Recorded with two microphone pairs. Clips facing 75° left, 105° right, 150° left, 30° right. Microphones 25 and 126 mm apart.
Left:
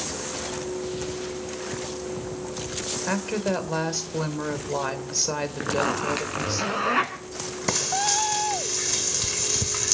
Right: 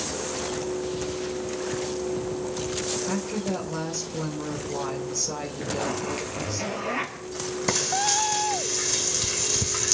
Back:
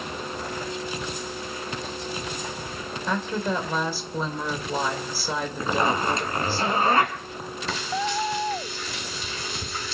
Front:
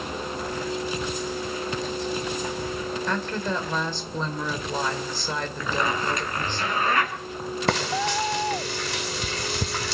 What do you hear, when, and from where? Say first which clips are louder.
3.1 s a woman speaking: left 2 dB, back 4 dB; 70° left, 2.5 m
5.6 s a zipper: left 4 dB, back 3 dB; 90° left, 3.5 m
7.7 s frying: even, front 2 dB; 15° right, 1.2 m